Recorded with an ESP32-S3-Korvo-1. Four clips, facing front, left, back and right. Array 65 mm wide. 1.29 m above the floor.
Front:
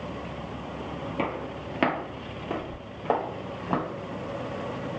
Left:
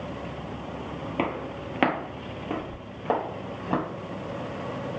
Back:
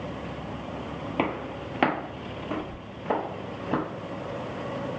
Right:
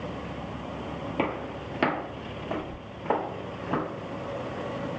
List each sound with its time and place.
1.2 s footsteps: 155° left, 1.5 m; by 3.8 s 40° left, 3 m